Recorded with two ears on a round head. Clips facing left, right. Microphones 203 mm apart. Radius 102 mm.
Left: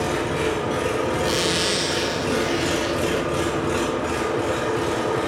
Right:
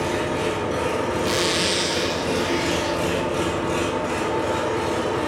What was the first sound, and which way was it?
An engine running, 15° left (ahead or behind).